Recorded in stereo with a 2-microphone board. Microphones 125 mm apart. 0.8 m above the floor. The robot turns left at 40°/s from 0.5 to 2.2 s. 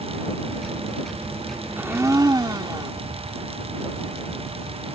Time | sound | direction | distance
1.8 | a blender | 15° right (ahead or behind) | ?